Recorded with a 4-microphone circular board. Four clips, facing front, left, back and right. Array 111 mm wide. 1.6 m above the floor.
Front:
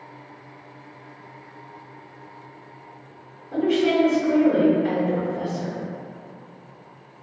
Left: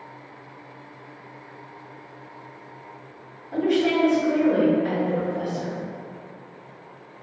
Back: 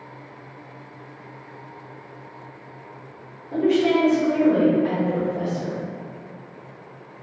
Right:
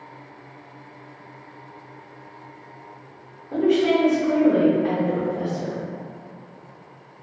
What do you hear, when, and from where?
3.5 s a woman speaking: 105° right, 1.2 m